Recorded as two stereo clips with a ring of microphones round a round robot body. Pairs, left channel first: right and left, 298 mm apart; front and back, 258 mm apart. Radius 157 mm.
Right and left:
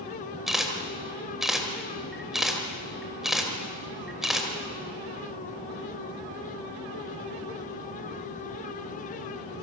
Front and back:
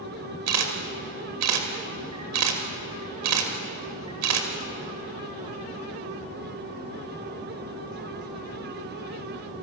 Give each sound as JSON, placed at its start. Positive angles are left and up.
{"t": 0.5, "sound": "a camera shutter", "azimuth_deg": 180, "distance_m": 3.0}